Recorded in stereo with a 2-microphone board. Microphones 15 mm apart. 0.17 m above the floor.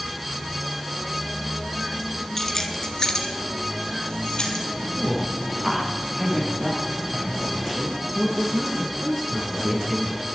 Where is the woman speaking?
10° right (ahead or behind), 4 m.